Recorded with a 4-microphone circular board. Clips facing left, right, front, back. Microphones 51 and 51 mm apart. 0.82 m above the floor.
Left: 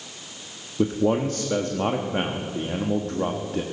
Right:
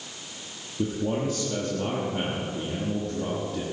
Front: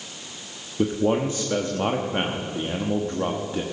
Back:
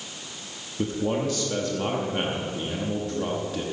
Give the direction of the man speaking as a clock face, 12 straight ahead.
10 o'clock.